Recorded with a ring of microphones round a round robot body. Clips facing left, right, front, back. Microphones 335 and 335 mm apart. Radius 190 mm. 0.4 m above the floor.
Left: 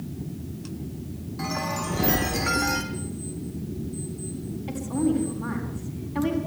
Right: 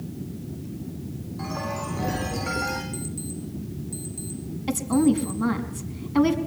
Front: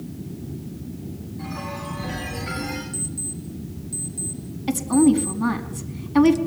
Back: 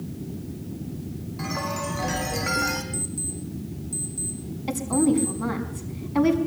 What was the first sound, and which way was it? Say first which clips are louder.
A chime: left 2 dB, back 4 dB; 140° left.